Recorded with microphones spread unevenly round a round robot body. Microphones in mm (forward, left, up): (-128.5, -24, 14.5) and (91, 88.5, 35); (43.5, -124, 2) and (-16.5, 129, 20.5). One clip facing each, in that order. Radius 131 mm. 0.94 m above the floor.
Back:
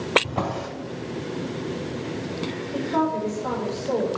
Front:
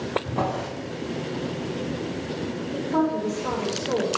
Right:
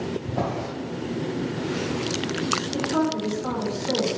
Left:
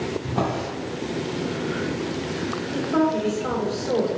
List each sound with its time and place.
0.2 s a drawer: straight behind, 1.3 m
2.7 s a woman speaking: 85° right, 1.9 m